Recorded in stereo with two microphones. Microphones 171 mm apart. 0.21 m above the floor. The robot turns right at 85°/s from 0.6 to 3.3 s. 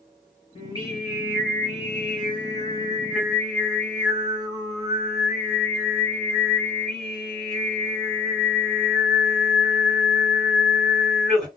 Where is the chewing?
I don't hear chewing.